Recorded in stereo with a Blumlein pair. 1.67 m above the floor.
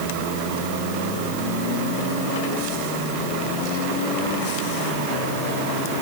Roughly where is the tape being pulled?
No tape being pulled in this recording.